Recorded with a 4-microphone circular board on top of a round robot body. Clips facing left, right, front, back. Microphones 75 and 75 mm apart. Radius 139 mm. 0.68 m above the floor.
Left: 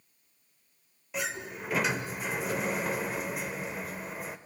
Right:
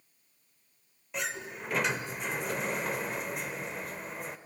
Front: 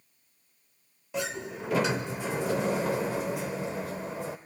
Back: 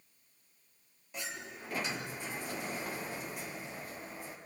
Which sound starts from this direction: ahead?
A sliding door, at 1.1 s.